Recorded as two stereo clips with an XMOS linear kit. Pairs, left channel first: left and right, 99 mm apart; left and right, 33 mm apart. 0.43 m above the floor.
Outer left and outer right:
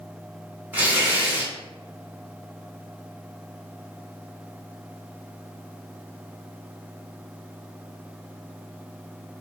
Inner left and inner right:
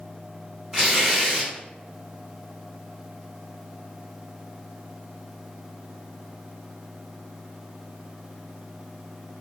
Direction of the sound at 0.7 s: 15° right (ahead or behind).